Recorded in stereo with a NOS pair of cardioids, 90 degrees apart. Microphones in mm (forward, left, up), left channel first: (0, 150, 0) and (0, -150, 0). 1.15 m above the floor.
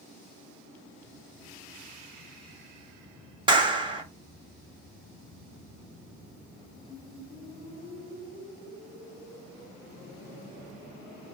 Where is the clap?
15° right, 1.1 m.